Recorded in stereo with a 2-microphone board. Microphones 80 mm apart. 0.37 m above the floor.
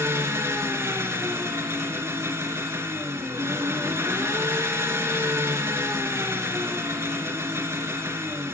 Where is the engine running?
35° right (ahead or behind), 2.5 m.